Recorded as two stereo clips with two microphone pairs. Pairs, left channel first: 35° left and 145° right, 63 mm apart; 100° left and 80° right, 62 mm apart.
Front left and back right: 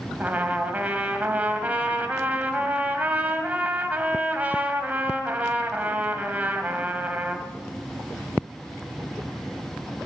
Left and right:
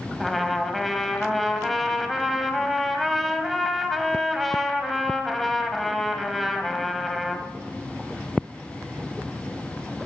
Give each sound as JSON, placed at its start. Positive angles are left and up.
{"t": 0.2, "sound": "a trumpet", "azimuth_deg": -175, "distance_m": 1.8}